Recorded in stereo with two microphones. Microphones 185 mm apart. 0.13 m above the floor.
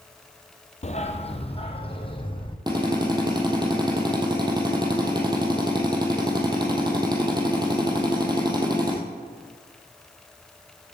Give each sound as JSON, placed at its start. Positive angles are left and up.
{"t": 0.8, "sound": "a dog barking", "side_deg": 40, "distance_m": 1.1}
{"t": 2.7, "sound": "a drill", "side_deg": -25, "distance_m": 2.5}